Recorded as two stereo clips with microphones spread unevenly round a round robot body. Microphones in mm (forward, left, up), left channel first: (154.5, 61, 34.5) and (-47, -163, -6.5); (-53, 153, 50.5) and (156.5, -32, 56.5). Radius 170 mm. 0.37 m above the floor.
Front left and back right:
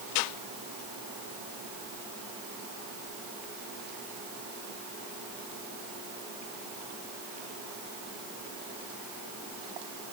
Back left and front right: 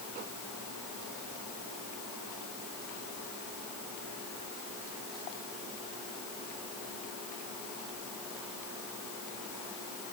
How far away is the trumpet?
I don't hear a trumpet.